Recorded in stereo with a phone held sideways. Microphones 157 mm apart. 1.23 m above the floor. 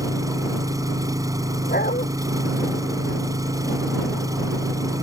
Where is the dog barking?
70° left (ahead or behind).